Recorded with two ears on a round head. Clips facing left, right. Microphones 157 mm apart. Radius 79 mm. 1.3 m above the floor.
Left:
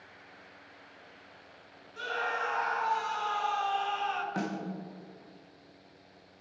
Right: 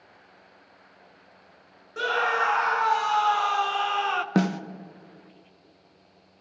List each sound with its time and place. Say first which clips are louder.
2.0 s a scream: right 8 dB; 70° right (ahead or behind), 0.6 m
4.3 s a snare drum: right 10 dB; 70° right (ahead or behind), 0.6 m